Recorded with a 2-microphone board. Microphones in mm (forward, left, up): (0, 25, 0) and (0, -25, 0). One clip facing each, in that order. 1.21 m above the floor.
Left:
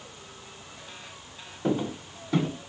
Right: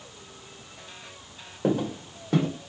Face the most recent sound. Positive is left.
turn(degrees=-50)  # may be behind; listen again after turning